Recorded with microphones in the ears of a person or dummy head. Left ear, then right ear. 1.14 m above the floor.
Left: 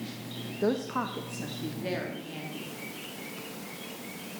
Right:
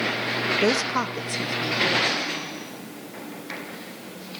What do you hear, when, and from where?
0.6 s a woman speaking: 65° right (ahead or behind), 0.9 m; by 2.7 s 25° right (ahead or behind), 2.5 m